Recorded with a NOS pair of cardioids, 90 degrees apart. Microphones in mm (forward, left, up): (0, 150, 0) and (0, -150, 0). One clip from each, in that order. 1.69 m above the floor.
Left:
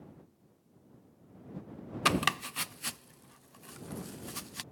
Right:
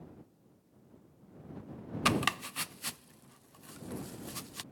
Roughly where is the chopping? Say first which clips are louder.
Left 2 dB; ahead.